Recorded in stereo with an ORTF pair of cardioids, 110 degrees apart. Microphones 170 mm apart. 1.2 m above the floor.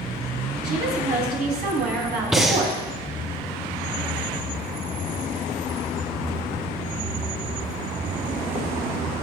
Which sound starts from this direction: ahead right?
A woman speaking, at 0.6 s.